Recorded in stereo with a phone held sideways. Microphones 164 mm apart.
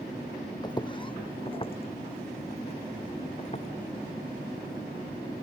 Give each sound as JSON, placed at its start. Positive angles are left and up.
{"t": 0.6, "sound": "footsteps", "side_deg": 25}